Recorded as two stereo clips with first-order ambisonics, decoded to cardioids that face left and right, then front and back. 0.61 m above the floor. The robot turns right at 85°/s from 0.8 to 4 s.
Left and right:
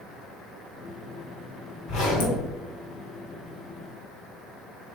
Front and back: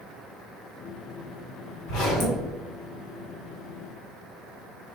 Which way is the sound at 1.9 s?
40° left.